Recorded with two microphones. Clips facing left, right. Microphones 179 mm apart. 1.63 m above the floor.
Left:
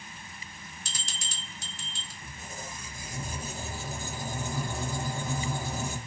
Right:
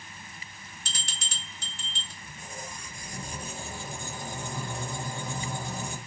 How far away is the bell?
About 0.7 m.